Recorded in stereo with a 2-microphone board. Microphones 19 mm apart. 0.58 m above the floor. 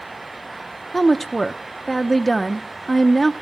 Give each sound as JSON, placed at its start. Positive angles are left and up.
{"t": 0.9, "sound": "a woman speaking", "side_deg": 0, "distance_m": 0.7}